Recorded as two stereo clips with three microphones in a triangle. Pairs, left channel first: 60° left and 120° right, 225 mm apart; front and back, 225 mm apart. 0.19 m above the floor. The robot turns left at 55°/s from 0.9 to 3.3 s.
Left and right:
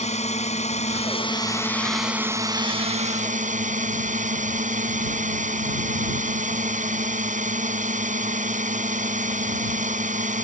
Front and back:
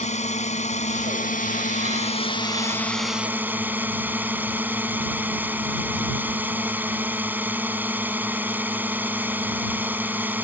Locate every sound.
0.0 s a drone: 30° left; by 10.4 s 105° right